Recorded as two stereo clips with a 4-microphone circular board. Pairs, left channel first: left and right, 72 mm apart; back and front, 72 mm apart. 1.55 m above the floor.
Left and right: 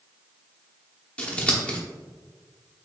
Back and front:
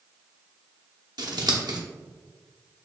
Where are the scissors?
20° left, 0.8 m.